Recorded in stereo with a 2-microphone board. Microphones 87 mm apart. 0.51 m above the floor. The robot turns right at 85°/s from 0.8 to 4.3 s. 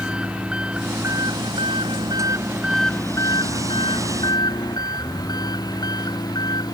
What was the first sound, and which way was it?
An engine running, 170° right.